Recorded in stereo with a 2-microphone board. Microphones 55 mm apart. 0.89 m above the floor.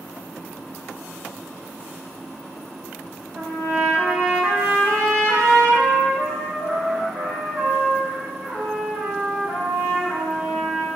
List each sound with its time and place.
3.4 s a trumpet: 55° right (ahead or behind), 1.8 m